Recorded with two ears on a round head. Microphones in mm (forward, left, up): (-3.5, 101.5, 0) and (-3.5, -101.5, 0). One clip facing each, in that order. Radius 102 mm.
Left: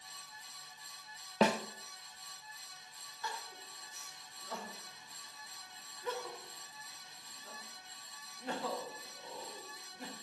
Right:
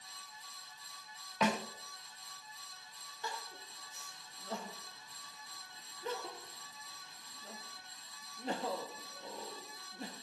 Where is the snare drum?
30° left (ahead or behind), 0.5 m.